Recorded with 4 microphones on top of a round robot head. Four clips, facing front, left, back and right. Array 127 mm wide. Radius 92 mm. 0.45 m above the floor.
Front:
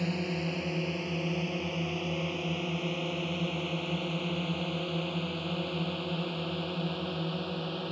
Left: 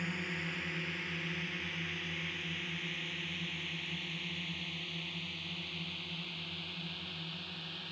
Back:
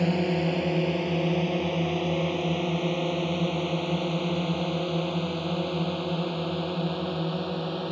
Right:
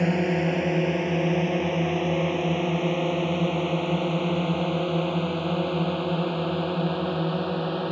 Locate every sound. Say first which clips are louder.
0.0 s a drone: right 18 dB, back 8 dB; 120° right; by 7.9 s 110° right